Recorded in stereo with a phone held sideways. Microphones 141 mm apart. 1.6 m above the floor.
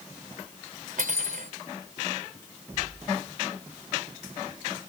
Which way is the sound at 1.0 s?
75° right (ahead or behind).